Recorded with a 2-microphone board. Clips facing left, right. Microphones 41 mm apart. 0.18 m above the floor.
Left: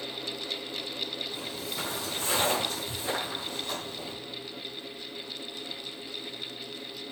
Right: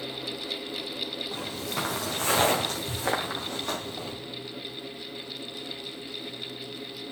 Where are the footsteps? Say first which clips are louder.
Right 3 dB; 75° right (ahead or behind), 3 m; by 4.1 s 70° right (ahead or behind), 4.5 m.